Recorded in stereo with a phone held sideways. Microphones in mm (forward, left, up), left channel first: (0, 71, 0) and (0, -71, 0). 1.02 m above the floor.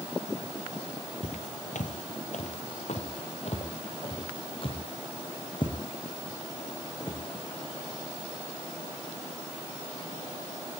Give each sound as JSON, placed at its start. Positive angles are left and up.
{"t": 1.2, "sound": "footsteps", "side_deg": 55, "distance_m": 1.8}